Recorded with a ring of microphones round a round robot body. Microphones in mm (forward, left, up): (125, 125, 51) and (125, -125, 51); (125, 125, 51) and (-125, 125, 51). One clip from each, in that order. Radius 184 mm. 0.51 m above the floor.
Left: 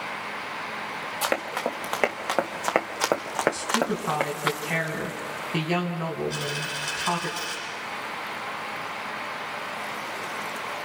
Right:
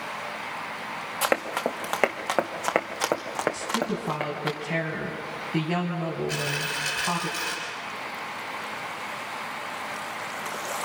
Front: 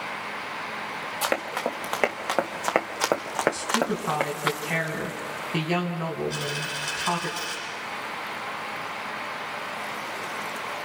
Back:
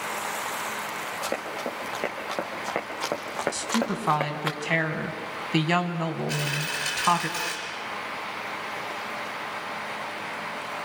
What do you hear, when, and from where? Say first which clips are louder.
1.2 s running footsteps: right 2 dB, front 7 dB; 25° right, 3 m; by 4.5 s 60° left, 3 m
3.5 s a woman speaking: left 2 dB, front 2 dB; 150° left, 4 m
6.3 s a dropped coin: right 2 dB, back 1 dB; 140° right, 5.5 m